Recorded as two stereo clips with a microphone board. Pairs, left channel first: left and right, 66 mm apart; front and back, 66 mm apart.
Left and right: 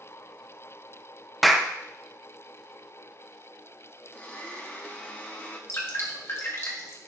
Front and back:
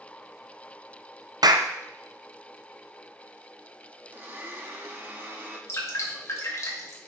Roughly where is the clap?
Behind.